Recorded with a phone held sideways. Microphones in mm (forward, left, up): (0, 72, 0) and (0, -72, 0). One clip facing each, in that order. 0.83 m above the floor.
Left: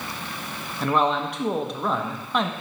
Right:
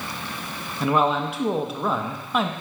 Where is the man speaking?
5° right (ahead or behind), 0.6 m.